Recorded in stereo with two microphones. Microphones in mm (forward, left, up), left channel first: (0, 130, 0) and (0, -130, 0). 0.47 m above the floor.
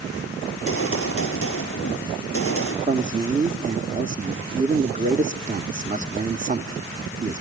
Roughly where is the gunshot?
Left.